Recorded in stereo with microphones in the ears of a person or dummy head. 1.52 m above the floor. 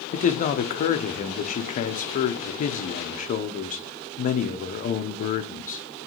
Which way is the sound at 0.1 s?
45° left (ahead or behind).